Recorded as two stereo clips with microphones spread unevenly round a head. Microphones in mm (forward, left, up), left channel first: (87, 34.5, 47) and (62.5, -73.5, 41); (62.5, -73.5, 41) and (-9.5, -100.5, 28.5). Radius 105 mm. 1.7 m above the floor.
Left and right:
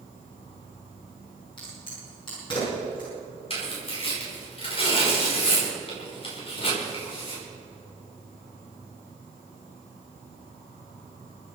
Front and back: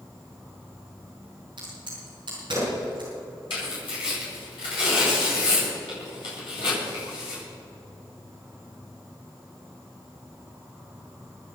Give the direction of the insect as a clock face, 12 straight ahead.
8 o'clock.